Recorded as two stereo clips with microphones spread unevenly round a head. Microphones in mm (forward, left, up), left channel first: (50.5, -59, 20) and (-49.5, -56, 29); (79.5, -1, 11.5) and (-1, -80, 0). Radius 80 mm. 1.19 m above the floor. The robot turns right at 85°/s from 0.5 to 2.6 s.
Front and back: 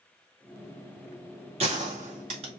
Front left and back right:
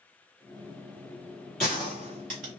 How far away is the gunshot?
About 1.9 m.